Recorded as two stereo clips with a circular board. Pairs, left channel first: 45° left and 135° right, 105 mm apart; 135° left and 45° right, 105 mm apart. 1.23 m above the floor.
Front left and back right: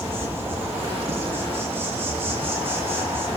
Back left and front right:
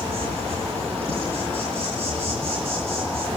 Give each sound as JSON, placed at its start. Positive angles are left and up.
{"t": 0.0, "sound": "an insect", "azimuth_deg": -65, "distance_m": 10.0}